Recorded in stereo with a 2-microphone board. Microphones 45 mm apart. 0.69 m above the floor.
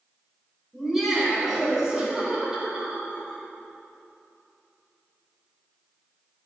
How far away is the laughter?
About 4 m.